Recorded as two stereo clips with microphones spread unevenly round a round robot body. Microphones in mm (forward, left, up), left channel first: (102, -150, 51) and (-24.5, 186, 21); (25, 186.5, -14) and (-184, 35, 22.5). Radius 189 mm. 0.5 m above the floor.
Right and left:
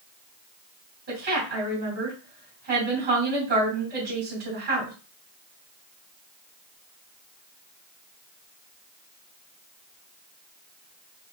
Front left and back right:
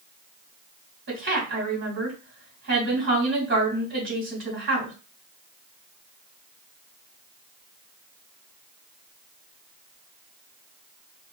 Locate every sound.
1.1 s a woman speaking: 175° left, 3 m